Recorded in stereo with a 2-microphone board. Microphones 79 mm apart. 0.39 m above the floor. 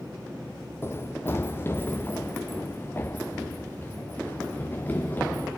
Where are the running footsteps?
30° left (ahead or behind), 0.8 m; by 5.5 s 25° left (ahead or behind), 3.5 m.